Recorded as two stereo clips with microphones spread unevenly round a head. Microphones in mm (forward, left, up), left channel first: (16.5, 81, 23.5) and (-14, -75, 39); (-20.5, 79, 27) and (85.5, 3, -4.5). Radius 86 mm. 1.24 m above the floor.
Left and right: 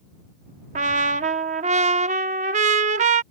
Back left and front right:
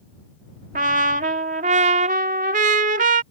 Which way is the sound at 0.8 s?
75° right.